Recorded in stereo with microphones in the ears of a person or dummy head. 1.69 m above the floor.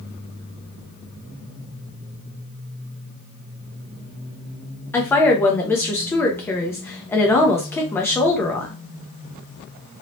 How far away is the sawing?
No sawing in this recording.